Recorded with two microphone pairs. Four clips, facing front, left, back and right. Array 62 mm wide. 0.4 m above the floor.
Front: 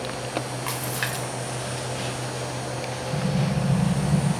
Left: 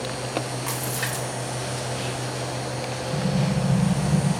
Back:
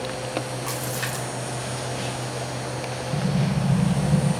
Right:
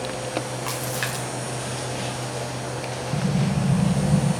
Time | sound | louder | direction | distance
0.7 | a splash | right 1 dB, even | 25° right | 1.7 m
3.1 | an explosion | right 1 dB, back 1 dB | 120° right | 1.3 m